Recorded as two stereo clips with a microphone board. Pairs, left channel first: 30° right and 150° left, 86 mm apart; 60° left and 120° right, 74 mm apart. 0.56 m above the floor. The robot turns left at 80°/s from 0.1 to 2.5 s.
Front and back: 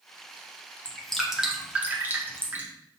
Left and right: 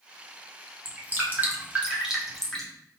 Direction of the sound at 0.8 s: 95° right.